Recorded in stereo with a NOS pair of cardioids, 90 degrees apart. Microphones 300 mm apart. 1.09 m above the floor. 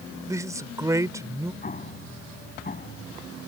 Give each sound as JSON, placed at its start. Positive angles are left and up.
{"t": 0.3, "sound": "a man speaking", "azimuth_deg": -10}
{"t": 1.6, "sound": "an explosion", "azimuth_deg": 30}